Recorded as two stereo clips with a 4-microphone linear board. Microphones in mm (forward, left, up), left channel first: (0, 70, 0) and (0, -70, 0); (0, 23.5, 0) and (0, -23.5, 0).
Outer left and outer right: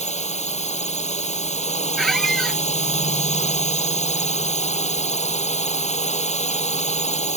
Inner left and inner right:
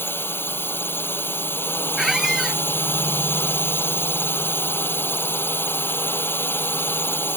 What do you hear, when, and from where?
0.0 s a drone: 55° left (ahead or behind)
2.0 s a squeak: centre (ahead or behind)